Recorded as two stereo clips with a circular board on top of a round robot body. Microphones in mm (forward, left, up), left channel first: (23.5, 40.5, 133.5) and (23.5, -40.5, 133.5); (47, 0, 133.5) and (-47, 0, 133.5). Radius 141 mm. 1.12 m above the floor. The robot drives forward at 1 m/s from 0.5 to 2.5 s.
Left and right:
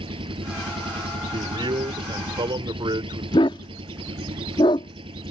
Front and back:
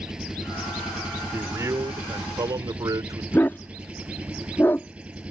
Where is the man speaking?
115° right; by 3.2 s 125° right.